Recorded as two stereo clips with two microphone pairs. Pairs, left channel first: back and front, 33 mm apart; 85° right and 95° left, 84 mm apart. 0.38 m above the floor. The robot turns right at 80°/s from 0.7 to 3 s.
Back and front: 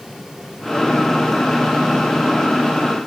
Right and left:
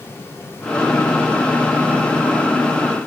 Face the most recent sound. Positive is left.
No sound to turn to.